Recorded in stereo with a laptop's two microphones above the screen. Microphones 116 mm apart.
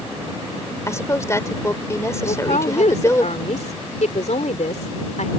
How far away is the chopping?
I don't hear chopping.